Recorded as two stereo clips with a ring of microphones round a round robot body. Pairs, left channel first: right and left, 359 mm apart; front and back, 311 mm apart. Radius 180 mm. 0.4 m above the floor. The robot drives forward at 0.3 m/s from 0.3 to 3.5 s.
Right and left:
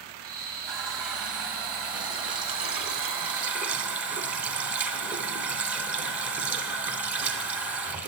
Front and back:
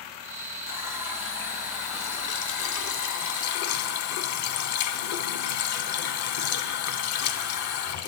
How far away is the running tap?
About 1.5 m.